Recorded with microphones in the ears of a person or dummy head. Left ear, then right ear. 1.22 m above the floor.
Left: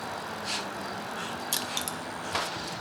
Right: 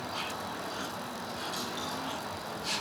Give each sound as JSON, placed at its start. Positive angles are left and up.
{"t": 1.5, "sound": "crushing", "side_deg": 45, "distance_m": 0.7}